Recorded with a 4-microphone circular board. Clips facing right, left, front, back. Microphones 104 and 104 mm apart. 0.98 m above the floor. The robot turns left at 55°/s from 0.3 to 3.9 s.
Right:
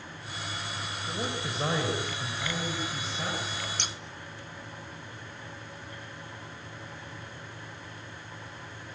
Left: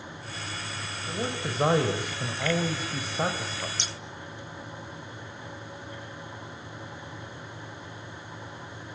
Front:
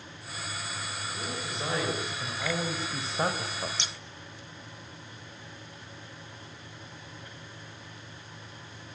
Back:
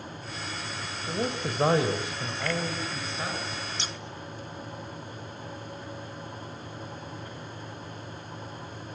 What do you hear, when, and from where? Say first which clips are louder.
1.1 s a man speaking: left 3 dB, back 9 dB; 175° left, 4 m; by 3.7 s 30° left, 4 m
3.8 s scissors: even, back 3 dB; 125° right, 1.2 m; by 3.9 s 135° right, 1.2 m